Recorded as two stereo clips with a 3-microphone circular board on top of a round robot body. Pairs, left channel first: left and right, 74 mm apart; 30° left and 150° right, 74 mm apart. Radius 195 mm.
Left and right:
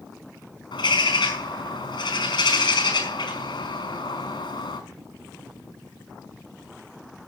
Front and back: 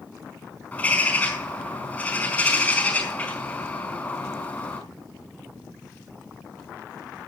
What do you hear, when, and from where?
0.7 s a bird: 105° left, 4.5 m